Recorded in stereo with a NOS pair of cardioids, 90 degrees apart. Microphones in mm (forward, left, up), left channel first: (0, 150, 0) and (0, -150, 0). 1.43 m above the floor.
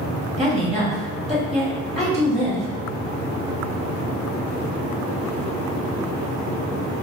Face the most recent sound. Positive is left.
turn(degrees=0)